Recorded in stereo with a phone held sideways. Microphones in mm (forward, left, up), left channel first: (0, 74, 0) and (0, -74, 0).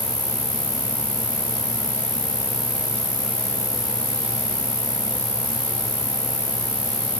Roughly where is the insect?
Left.